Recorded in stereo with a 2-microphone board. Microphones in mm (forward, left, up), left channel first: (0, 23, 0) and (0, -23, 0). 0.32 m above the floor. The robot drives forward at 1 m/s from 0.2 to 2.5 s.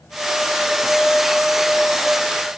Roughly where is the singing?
I don't hear singing.